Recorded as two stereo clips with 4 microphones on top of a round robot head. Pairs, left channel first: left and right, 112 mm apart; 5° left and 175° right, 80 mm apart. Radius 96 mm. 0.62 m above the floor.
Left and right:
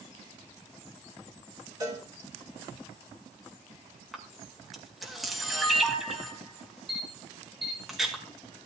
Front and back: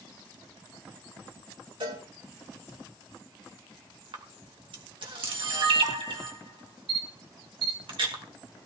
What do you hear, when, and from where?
1.8 s a cowbell: 150° right, 5.5 m
4.1 s a camera shutter: straight behind, 2 m